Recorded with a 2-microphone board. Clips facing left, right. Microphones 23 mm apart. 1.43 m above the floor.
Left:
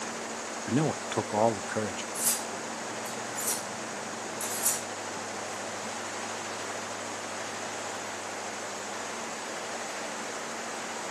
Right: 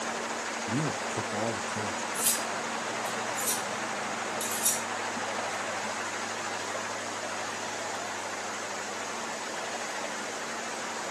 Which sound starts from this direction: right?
Cutlery clinking, at 2.1 s.